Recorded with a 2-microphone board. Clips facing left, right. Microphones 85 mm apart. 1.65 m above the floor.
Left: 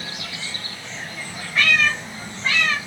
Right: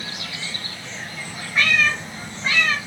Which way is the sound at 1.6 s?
15° right (ahead or behind).